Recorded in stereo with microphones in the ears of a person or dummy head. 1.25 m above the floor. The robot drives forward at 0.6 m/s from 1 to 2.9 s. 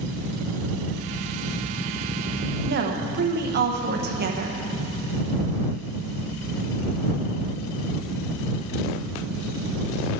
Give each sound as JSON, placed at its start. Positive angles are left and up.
{"t": 2.7, "sound": "a woman speaking", "side_deg": -55, "distance_m": 0.9}